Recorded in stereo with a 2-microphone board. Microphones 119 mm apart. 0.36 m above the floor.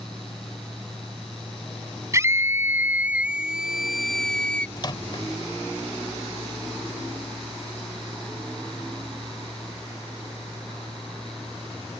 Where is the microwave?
40° left (ahead or behind).